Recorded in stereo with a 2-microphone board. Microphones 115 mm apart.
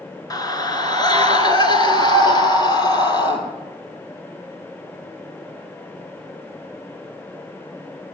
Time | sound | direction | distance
0.3 | a scream | 35° left (ahead or behind) | 1.2 m